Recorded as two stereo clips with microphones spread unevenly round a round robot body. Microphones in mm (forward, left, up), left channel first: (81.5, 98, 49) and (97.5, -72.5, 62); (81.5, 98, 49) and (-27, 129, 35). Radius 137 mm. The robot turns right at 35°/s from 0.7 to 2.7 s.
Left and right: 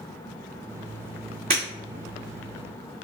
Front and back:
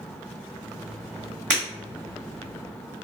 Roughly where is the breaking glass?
Behind right.